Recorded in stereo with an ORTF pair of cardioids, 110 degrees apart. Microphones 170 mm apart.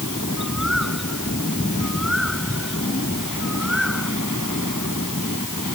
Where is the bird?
Straight ahead.